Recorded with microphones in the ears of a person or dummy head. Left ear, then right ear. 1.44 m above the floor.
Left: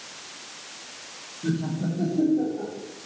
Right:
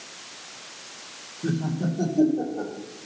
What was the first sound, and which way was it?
Laughter, 80° right.